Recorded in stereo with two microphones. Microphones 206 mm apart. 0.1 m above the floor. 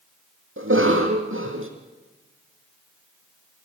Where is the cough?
75° right (ahead or behind), 3.5 m.